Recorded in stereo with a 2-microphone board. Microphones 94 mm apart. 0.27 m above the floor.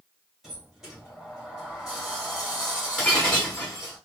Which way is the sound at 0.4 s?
5° right (ahead or behind).